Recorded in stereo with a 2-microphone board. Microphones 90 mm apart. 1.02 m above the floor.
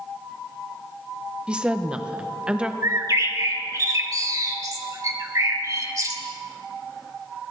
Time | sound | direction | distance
1.5 | a woman speaking | 10° right (ahead or behind) | 0.7 m
2.8 | a bird | 40° right (ahead or behind) | 1.0 m